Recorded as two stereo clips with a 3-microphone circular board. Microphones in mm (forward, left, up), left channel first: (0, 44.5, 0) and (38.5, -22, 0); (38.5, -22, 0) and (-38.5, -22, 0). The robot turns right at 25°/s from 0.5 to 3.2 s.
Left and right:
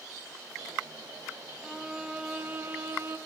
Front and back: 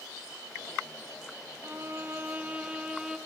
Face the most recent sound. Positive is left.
turn(degrees=-100)